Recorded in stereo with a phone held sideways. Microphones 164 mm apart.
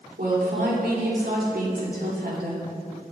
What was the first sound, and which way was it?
A woman speaking, 80° right.